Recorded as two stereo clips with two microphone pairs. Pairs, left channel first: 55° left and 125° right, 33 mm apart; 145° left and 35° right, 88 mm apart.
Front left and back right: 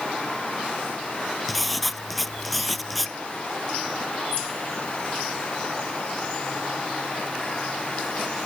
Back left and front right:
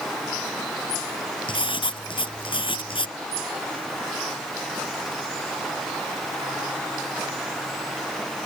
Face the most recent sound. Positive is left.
turn(degrees=145)